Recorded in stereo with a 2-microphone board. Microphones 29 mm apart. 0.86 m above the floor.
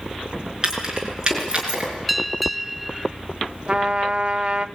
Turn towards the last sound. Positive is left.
turn(degrees=-30)  # may be behind; listen again after turning